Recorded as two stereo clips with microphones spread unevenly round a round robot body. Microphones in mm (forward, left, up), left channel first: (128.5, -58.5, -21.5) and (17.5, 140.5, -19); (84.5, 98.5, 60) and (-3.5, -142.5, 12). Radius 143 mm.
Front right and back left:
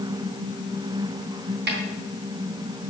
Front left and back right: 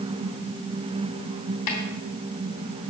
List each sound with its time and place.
1.7 s a snare drum: 75° left, 3 m